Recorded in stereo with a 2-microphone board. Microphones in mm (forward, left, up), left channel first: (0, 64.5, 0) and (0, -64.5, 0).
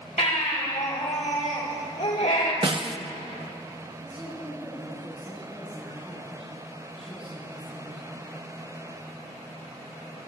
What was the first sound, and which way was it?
A baby crying, 80° left.